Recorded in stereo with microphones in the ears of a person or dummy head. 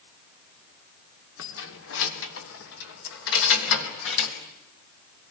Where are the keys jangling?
70° left (ahead or behind), 2.5 m.